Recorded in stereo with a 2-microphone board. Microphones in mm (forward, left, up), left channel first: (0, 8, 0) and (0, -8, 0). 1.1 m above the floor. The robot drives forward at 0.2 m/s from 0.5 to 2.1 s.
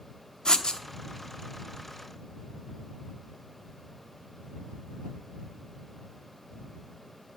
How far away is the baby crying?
No baby crying in this recording.